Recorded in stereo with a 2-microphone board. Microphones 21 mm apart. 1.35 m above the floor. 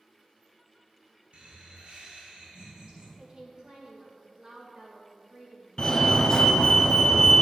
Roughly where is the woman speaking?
Right.